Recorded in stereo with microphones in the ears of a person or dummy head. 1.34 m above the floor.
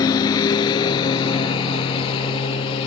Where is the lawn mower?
25° left (ahead or behind); by 2.9 s 35° left (ahead or behind).